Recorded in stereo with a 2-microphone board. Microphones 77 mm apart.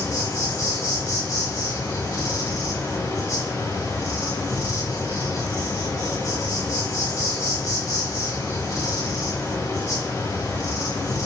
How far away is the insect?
About 1.1 m.